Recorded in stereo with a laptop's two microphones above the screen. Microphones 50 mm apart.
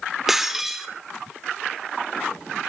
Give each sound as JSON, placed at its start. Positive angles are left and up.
{"t": 0.3, "sound": "breaking glass", "side_deg": -5, "distance_m": 1.4}